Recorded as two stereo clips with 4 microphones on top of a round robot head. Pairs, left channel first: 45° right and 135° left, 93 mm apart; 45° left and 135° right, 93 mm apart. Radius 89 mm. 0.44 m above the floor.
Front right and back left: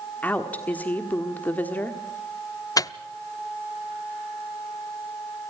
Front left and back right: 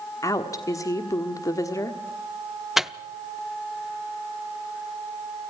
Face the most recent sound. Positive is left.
turn(degrees=-50)